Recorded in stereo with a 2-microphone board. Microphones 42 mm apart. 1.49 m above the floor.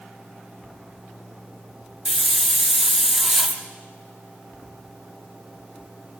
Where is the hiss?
10° right (ahead or behind), 1.8 m.